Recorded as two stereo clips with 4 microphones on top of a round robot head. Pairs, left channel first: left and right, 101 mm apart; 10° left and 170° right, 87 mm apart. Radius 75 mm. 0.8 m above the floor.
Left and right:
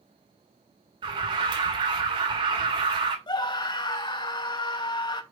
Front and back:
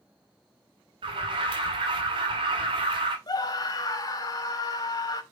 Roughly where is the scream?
Ahead left.